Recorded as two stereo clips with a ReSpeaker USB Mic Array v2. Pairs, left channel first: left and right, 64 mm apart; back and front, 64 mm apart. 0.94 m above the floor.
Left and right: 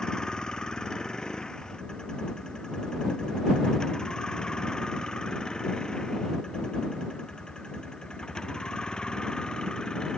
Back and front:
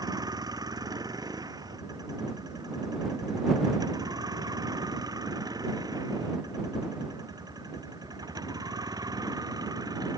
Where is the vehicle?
10° left.